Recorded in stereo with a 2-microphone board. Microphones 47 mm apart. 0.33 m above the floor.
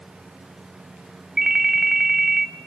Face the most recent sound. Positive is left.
turn(degrees=-10)  # may be behind; listen again after turning